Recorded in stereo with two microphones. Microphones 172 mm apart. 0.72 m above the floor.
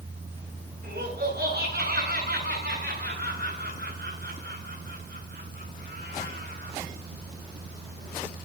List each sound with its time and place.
0.8 s laughter: 70° right (ahead or behind), 9.5 m; by 6.8 s 75° right (ahead or behind), 9 m